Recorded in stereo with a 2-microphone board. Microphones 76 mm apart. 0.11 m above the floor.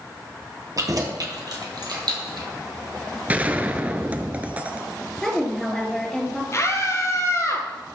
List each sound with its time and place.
0.8 s keys jangling: 50° right (ahead or behind), 1.8 m; by 2.5 s 65° right (ahead or behind), 2.5 m
3.3 s a gunshot: 20° right (ahead or behind), 0.7 m
5.2 s a woman speaking: 10° left (ahead or behind), 2.5 m
6.5 s a scream: 40° left (ahead or behind), 2.5 m